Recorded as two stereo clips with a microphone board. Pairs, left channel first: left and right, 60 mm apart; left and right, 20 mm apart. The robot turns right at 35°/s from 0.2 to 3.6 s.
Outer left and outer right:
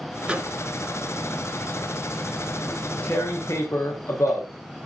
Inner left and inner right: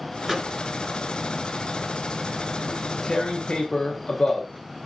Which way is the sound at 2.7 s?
15° left (ahead or behind).